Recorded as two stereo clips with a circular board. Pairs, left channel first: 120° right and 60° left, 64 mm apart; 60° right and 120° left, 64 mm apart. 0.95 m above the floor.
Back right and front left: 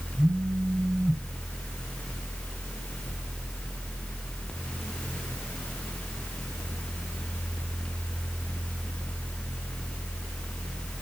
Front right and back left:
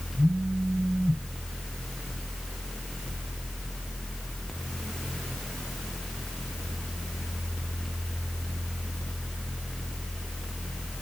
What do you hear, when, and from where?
0.2 s a phone buzzing: 35° right, 4 m